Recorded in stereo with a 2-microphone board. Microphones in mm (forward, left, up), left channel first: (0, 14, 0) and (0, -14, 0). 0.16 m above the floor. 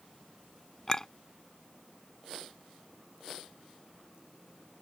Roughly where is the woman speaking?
No woman speaking in this recording.